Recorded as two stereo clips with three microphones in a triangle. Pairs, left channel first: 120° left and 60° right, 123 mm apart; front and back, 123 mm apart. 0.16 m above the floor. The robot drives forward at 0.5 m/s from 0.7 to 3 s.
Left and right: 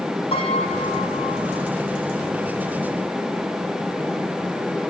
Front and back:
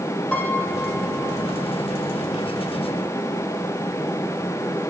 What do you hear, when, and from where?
0.3 s a piano: 80° left, 3.5 m; by 1.7 s 90° left, 3.5 m